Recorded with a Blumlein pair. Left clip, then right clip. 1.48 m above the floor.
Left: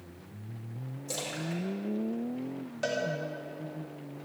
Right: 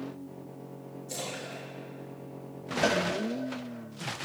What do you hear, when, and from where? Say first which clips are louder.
1.1 s a splash: left 2 dB; 60° left, 5 m
2.8 s a cowbell: right 5 dB; 15° right, 1.6 m